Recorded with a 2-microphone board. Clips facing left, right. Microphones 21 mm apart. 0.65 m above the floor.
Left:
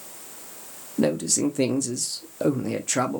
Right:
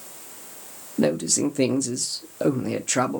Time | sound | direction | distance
1.0 | a man speaking | 10° right (ahead or behind) | 0.6 m